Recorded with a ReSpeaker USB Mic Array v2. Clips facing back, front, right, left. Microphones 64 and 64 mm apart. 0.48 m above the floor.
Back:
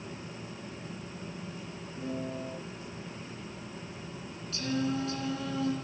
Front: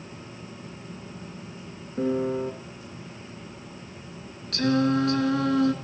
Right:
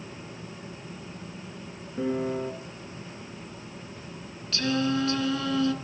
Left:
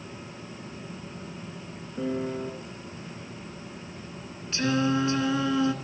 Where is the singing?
20° left, 2 m.